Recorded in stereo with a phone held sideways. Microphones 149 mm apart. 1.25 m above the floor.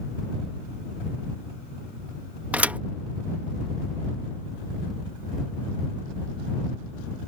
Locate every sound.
2.5 s a thud: 10° right (ahead or behind)